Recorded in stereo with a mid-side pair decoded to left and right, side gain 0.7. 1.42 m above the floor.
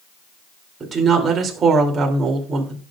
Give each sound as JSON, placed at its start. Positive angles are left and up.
{"t": 0.8, "sound": "a woman speaking", "azimuth_deg": -25, "distance_m": 3.0}